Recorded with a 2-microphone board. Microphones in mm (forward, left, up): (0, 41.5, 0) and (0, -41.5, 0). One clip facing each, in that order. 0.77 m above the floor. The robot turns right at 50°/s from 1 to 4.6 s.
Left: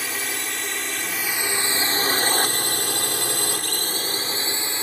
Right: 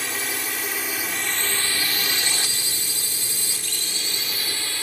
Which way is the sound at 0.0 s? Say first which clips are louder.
Even; centre (ahead or behind).